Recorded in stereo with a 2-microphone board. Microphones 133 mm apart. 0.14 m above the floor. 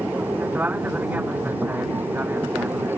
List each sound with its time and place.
0.0 s an aircraft: 15° right (ahead or behind)